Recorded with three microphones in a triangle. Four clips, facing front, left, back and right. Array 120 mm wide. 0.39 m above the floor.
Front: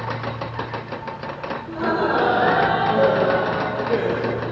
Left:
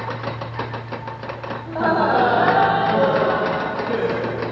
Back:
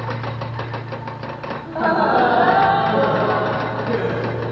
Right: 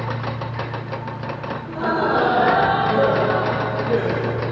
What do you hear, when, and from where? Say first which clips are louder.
1.7 s laughter: left 3 dB, back 4 dB; 145° left, 2.5 m; by 4.4 s 165° left, 4.5 m